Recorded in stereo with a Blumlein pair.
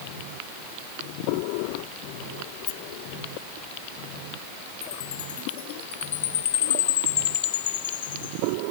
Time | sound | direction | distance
2.7 | a rattle | 45° left | ?
4.8 | a chime | 60° left | ?